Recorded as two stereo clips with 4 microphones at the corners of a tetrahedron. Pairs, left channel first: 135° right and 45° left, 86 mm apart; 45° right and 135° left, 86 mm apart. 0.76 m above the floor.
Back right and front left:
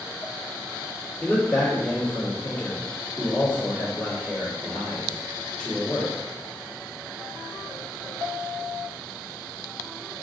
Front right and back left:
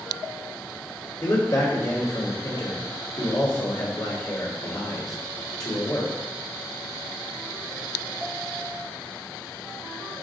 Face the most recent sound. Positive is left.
turn(degrees=-65)